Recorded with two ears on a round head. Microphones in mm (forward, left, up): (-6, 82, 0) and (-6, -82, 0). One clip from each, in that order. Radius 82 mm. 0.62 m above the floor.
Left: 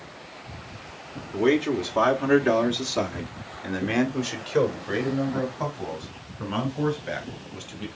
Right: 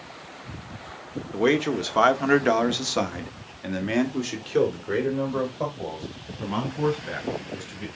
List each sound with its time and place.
1.3 s a man speaking: 50° right (ahead or behind), 1.8 m; by 7.9 s 10° left (ahead or behind), 4.5 m